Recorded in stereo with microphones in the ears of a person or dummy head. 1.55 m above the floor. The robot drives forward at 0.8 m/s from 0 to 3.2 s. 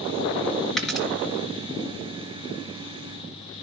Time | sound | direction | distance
0.8 | a dropped coin | centre (ahead or behind) | 3.5 m